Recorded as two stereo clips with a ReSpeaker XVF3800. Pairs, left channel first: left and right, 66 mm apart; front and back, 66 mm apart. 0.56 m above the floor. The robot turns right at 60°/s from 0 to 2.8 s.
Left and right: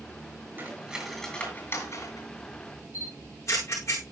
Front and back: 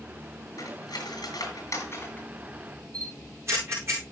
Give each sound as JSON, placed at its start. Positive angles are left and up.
{"t": 0.6, "sound": "cutlery clinking", "azimuth_deg": -30, "distance_m": 6.0}
{"t": 2.9, "sound": "a camera shutter", "azimuth_deg": 135, "distance_m": 9.5}